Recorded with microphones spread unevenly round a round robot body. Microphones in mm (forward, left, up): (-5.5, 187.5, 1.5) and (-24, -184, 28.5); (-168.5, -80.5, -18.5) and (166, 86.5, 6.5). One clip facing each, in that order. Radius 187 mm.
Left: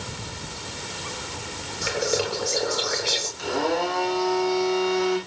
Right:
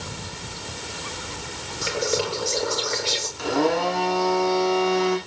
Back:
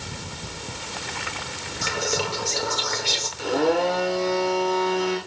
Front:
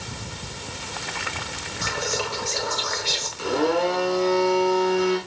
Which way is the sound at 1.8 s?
175° left.